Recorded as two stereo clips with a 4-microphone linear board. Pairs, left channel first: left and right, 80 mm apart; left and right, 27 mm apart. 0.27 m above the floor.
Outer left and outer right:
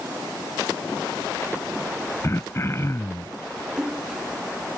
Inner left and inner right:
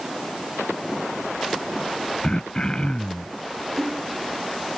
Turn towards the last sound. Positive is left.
turn(degrees=-10)  # may be behind; listen again after turning